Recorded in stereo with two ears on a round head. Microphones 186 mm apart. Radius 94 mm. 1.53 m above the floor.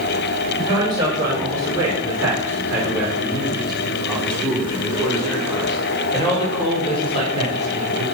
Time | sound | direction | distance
0.6 | a man speaking | 25° right (ahead or behind) | 5 m